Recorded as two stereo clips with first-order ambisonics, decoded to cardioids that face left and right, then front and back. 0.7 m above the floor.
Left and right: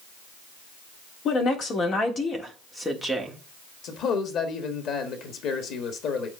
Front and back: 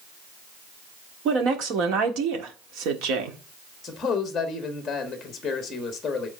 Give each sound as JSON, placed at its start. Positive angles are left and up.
{"t": 1.2, "sound": "a woman speaking", "azimuth_deg": 140, "distance_m": 1.9}
{"t": 3.8, "sound": "a man speaking", "azimuth_deg": 70, "distance_m": 1.4}